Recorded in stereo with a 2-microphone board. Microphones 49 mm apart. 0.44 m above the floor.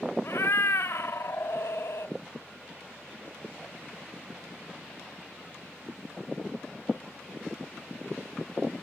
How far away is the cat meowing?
About 0.7 m.